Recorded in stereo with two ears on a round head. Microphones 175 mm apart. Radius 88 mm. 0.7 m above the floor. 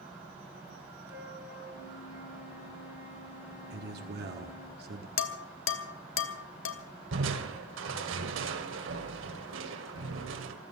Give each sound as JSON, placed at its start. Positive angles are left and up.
{"t": 1.1, "sound": "a flute", "side_deg": -10, "distance_m": 7.0}
{"t": 3.7, "sound": "a man speaking", "side_deg": -50, "distance_m": 1.5}
{"t": 5.2, "sound": "dishes clattering", "side_deg": 70, "distance_m": 1.3}
{"t": 7.1, "sound": "crushing", "side_deg": -65, "distance_m": 2.0}